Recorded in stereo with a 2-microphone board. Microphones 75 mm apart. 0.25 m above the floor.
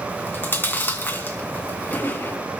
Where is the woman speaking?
I don't hear a woman speaking.